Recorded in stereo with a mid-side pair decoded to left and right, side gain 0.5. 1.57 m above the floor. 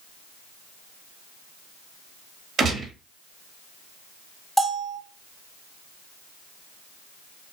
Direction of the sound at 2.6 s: 50° right.